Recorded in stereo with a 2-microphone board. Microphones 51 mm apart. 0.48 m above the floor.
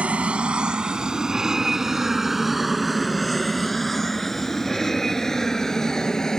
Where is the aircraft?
25° right (ahead or behind); by 6.4 s 10° left (ahead or behind).